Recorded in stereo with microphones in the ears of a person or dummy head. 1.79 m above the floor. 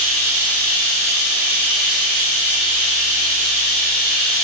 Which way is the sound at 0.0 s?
50° right (ahead or behind).